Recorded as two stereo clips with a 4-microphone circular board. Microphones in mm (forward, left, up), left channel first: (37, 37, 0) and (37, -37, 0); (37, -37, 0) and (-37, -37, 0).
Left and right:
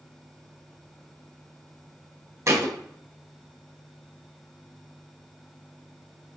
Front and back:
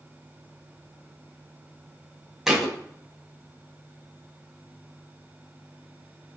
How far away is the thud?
About 0.8 m.